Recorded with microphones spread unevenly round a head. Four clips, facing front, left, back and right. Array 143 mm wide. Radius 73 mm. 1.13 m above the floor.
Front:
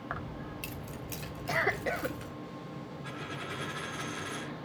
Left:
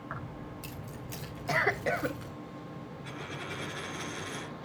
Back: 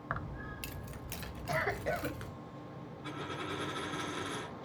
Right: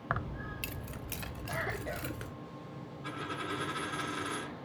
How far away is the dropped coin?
About 5.5 m.